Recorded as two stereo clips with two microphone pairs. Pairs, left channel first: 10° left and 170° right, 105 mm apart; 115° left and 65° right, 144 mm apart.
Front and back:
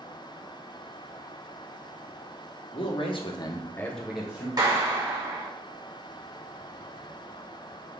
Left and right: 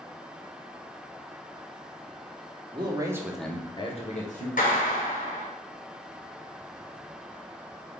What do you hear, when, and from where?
2.7 s a man speaking: 15° right, 1.0 m; by 4.5 s 115° left, 0.9 m
4.6 s a clap: 140° left, 1.2 m